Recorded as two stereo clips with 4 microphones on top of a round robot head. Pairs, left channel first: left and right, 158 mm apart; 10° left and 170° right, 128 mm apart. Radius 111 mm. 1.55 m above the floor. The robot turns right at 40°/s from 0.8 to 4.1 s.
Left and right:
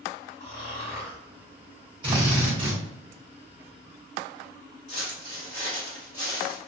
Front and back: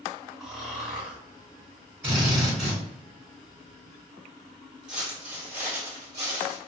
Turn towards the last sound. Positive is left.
turn(degrees=160)